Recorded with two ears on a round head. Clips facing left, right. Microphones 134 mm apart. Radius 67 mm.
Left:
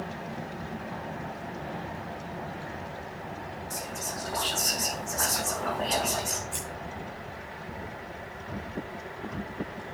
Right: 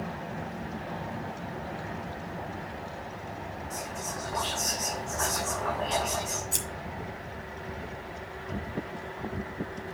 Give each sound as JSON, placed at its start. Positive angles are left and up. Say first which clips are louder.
{"t": 3.7, "sound": "whispering", "louder": "even", "side_deg": 40, "distance_m": 4.0}
{"t": 6.5, "sound": "scissors", "louder": "even", "side_deg": -55, "distance_m": 2.5}